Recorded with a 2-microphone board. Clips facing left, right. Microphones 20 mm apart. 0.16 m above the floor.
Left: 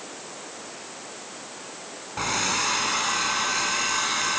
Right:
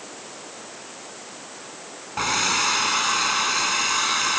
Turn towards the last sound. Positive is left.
turn(degrees=-15)  # may be behind; listen again after turning